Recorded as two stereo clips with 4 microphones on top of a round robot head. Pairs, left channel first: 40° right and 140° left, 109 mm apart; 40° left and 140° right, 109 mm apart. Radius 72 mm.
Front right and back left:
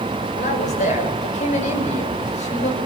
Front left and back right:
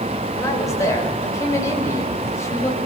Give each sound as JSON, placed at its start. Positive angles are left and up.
{"t": 0.3, "sound": "a man speaking", "azimuth_deg": -20, "distance_m": 8.5}